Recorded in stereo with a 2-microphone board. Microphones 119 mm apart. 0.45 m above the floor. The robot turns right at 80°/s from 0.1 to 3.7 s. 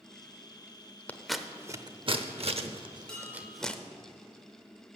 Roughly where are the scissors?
Centre.